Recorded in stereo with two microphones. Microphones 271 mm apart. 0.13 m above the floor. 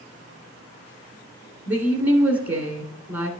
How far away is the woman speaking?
About 1.2 m.